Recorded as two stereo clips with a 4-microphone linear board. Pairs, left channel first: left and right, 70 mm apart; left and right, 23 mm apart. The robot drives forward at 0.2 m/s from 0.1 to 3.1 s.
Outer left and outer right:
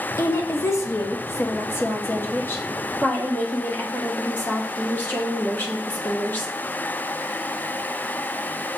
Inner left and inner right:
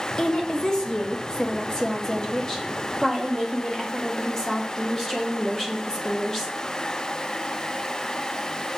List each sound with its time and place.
0.2 s a woman speaking: 40° left (ahead or behind), 0.6 m; by 6.5 s 25° left (ahead or behind), 0.9 m